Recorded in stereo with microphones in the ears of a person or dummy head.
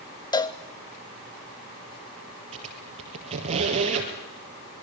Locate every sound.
0.3 s a cowbell: 20° left (ahead or behind), 0.7 m
2.5 s a squeak: 40° right (ahead or behind), 3 m